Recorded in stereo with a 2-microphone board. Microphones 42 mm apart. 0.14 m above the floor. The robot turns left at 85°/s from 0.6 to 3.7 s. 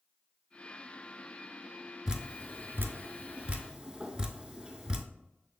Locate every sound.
2.1 s dripping: 15° right (ahead or behind), 0.6 m; by 5.0 s 20° right (ahead or behind), 0.6 m